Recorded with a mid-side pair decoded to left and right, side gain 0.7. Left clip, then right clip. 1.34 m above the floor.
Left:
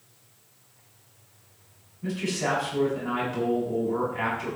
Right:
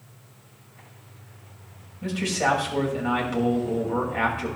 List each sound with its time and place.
2.0 s a man speaking: 65° right, 6 m